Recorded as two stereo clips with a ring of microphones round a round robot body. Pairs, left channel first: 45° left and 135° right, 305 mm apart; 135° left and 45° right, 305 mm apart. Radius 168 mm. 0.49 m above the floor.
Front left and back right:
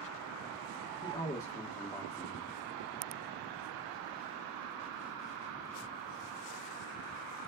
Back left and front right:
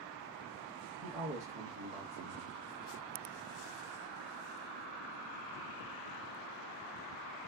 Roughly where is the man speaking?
Ahead right.